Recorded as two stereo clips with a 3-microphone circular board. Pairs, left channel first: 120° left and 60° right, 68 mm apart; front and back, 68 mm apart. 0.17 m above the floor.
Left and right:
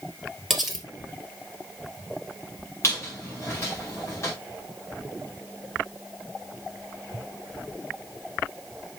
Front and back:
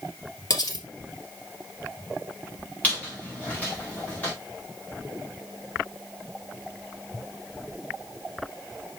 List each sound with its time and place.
0.5 s cutlery clinking: 30° left, 2.5 m
2.8 s a squeak: 70° left, 4.5 m